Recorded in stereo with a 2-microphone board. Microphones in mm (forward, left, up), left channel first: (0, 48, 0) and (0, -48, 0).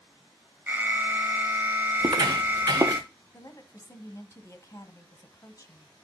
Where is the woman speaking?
35° left (ahead or behind), 1.3 m.